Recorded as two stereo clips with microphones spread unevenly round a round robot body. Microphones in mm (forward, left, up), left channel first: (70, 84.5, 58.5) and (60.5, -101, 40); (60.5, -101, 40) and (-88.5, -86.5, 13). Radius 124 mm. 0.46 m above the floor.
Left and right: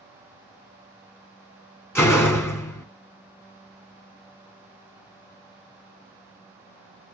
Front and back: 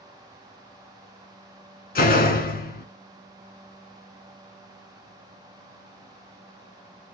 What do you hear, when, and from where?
1.9 s a door slam: 10° left, 1.3 m